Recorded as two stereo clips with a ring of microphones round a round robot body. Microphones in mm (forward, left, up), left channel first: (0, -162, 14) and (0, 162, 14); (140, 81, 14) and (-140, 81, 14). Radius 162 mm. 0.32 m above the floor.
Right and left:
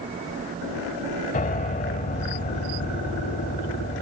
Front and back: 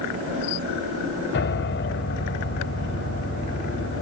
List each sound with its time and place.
1.3 s a piano: 30° right